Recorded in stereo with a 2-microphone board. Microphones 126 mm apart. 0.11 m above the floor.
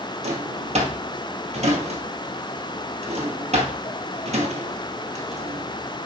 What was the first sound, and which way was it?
A drawer, 60° right (ahead or behind).